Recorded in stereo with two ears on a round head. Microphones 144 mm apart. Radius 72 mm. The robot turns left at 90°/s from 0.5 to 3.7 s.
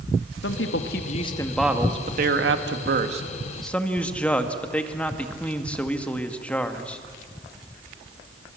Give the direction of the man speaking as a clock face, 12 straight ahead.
9 o'clock.